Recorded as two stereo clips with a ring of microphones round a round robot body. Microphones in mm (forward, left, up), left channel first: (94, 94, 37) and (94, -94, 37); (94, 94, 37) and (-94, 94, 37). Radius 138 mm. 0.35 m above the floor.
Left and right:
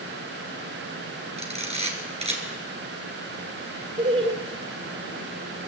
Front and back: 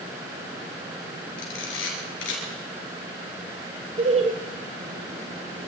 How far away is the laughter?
About 1.7 m.